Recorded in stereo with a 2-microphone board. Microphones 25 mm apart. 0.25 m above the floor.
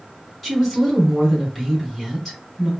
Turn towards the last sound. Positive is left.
turn(degrees=0)  # may be behind; listen again after turning